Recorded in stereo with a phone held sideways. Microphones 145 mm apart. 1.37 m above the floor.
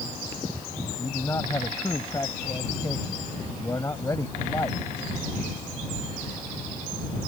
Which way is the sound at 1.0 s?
20° left (ahead or behind).